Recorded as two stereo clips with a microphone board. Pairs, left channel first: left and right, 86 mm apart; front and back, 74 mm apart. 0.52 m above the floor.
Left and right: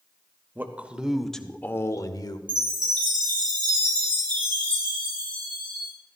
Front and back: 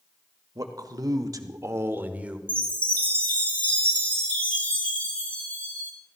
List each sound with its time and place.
0.6 s a man speaking: 155° right, 1.5 m; by 2.4 s 105° left, 1.3 m
2.5 s a chime: 70° right, 4 m